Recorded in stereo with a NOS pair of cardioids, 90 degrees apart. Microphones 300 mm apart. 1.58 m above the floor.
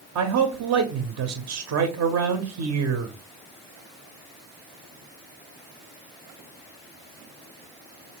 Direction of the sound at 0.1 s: 60° right.